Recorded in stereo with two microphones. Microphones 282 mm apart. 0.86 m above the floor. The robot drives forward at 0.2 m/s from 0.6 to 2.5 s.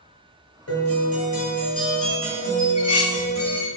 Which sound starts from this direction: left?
A guitar, at 0.7 s.